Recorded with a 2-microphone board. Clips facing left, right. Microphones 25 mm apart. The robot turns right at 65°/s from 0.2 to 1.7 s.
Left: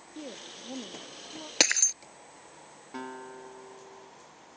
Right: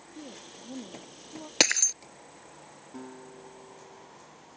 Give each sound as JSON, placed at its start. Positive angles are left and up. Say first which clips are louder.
{"t": 0.1, "sound": "a woman speaking", "louder": "left 3 dB", "azimuth_deg": 100}
{"t": 1.6, "sound": "breaking glass", "louder": "right 1 dB", "side_deg": -5}
{"t": 2.9, "sound": "a guitar", "louder": "left 5 dB", "side_deg": 60}